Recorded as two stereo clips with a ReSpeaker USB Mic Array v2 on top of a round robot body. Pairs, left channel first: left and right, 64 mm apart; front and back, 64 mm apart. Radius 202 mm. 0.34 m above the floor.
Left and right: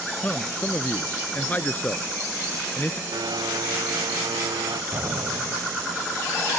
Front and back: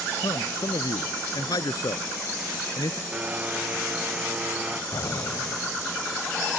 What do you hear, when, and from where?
0.2 s a man speaking: 20° left
3.1 s a blender: 110° right
4.9 s an explosion: 35° right